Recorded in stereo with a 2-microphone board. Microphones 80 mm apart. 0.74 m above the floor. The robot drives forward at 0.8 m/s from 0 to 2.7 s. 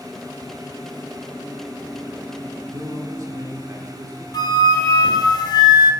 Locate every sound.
2.7 s a man speaking: 45° right (ahead or behind), 1.6 m
4.3 s a flute: 60° left (ahead or behind), 0.8 m